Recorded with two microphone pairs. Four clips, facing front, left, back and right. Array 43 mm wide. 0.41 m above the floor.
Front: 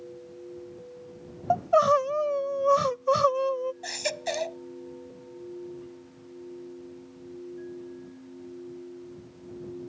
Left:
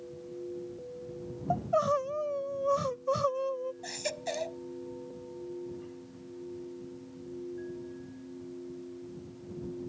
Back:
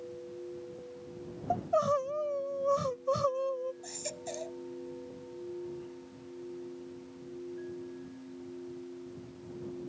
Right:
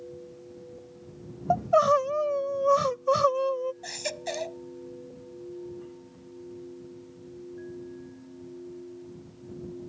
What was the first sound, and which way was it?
Crying, 35° right.